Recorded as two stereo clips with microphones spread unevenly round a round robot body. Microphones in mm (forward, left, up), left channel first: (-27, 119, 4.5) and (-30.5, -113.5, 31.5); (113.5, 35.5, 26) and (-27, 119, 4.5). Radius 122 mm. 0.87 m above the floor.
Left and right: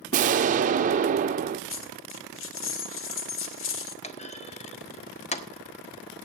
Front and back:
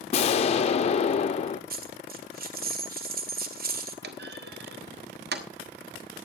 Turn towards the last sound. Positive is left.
turn(degrees=150)